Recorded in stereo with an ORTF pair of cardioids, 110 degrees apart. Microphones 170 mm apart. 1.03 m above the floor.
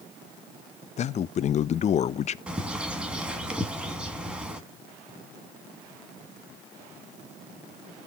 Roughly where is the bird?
Ahead.